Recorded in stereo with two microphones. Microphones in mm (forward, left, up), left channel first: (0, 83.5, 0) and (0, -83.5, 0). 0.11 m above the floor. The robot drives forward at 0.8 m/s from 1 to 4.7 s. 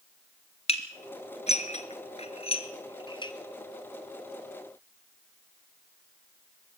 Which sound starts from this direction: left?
Dishes clattering, at 0.7 s.